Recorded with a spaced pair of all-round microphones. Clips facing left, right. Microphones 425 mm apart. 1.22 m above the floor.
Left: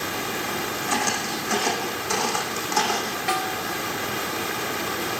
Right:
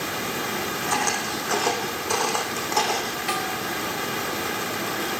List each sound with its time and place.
0.9 s footsteps: 45° left (ahead or behind), 4 m; by 3.2 s 25° left (ahead or behind), 3.5 m
3.3 s a snare drum: 80° left, 4.5 m